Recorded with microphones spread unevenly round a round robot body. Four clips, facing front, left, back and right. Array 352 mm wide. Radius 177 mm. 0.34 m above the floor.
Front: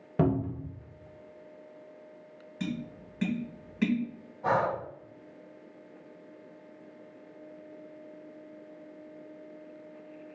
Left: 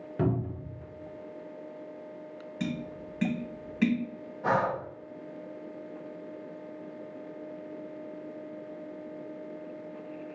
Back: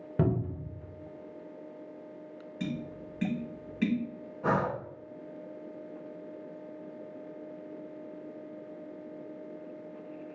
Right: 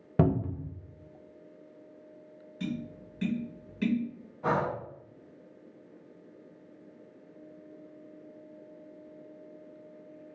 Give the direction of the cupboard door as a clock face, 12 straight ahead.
3 o'clock.